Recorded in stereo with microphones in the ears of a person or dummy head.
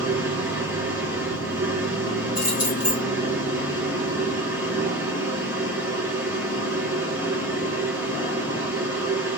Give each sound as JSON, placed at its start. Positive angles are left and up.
{"t": 0.0, "sound": "a machine running", "side_deg": -15, "distance_m": 1.8}
{"t": 2.4, "sound": "keys jangling", "side_deg": 20, "distance_m": 1.8}